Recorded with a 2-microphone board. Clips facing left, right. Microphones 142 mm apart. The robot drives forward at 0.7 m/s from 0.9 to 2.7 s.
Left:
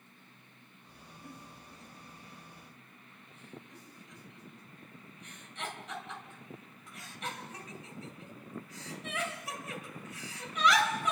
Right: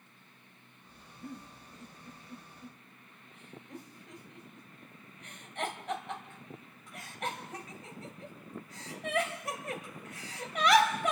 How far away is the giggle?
About 2.5 m.